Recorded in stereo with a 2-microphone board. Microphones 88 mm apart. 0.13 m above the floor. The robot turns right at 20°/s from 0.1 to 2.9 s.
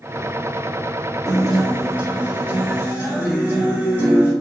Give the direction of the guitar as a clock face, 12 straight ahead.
6 o'clock.